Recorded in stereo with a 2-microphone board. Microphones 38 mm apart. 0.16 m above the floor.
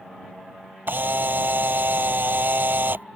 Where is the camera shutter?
65° right (ahead or behind).